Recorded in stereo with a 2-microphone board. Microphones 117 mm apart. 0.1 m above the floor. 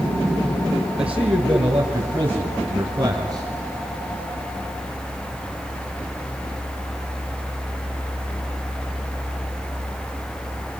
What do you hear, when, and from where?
1.0 s a man speaking: 5° right (ahead or behind), 2 m; by 3.5 s 30° right (ahead or behind), 3 m